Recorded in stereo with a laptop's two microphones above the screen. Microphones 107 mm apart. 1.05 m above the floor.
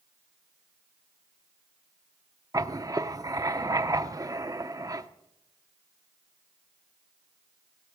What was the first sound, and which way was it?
Writing, 30° right (ahead or behind).